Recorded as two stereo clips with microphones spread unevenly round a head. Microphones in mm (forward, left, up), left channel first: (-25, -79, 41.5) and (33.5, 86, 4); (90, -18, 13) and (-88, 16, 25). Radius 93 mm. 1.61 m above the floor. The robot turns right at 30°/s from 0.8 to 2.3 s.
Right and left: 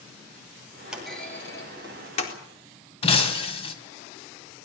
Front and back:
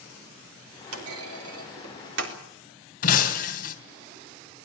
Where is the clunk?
160° left, 4 m; by 2.4 s 160° right, 4 m.